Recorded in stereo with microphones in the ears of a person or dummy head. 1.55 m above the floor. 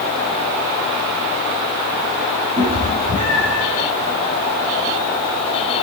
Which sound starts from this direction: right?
A cat meowing, at 2.6 s.